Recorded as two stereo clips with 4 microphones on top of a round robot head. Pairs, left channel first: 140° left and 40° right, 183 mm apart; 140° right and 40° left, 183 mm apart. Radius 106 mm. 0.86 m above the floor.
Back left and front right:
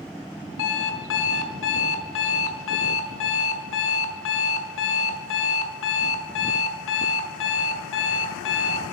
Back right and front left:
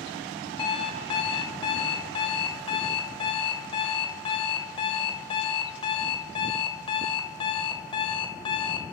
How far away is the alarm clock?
About 1.7 m.